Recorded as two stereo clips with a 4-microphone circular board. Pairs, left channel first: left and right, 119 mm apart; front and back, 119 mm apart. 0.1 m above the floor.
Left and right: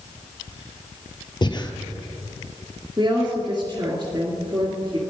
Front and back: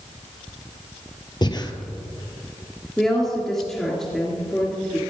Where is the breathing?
45° left, 1.0 m.